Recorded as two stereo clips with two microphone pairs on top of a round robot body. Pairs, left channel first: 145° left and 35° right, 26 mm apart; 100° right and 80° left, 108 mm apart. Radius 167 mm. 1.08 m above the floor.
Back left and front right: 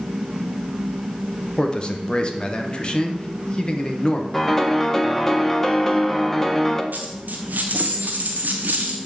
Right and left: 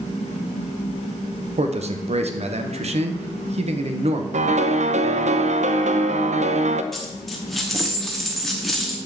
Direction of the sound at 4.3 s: 65° left.